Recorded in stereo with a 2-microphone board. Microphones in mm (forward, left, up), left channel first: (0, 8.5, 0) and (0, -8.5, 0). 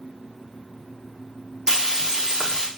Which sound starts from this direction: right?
Frying, at 1.7 s.